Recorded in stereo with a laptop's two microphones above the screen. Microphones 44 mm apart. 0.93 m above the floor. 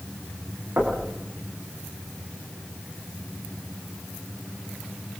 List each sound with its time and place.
0.8 s knocking: 70° right (ahead or behind), 7 m